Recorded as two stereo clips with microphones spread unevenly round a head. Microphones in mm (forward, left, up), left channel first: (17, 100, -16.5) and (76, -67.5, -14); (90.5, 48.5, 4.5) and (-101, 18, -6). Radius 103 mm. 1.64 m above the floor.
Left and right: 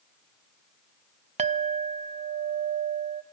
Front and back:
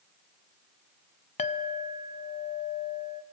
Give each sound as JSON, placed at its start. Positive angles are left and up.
{"t": 1.4, "sound": "a clink", "azimuth_deg": -35, "distance_m": 0.7}